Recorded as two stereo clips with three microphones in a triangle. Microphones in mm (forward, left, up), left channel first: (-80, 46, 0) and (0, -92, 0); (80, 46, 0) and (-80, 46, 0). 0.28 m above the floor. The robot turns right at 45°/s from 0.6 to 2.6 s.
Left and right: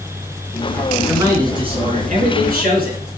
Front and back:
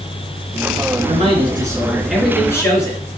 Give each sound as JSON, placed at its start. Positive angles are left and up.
{"t": 1.1, "sound": "a man speaking", "azimuth_deg": -140, "distance_m": 3.5}